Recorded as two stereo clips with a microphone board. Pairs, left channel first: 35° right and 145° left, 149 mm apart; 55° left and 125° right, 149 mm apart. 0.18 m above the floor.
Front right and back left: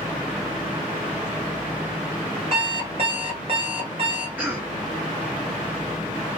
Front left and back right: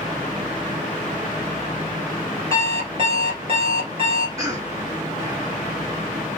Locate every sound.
2.5 s an alarm clock: 170° right, 1.6 m
4.4 s a cough: 150° right, 1.4 m